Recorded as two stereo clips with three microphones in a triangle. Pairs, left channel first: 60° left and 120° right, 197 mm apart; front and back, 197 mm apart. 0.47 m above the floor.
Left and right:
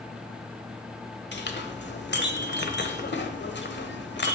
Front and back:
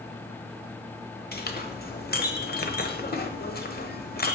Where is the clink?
35° left, 1.1 m.